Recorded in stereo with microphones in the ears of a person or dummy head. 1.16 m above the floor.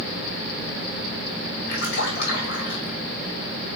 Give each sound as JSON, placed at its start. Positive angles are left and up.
{"t": 1.7, "sound": "a splash", "side_deg": 65, "distance_m": 1.6}